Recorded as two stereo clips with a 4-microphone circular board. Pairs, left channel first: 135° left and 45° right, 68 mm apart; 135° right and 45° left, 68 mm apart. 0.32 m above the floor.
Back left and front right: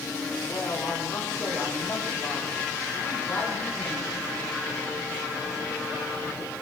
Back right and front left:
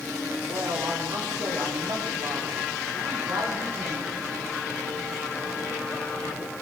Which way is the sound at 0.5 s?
65° left.